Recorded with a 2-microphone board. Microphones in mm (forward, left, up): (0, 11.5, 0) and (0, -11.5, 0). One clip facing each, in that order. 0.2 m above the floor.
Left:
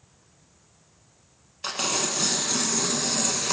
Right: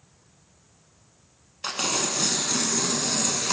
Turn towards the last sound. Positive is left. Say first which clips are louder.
# even
turn(degrees=-5)  # may be behind; listen again after turning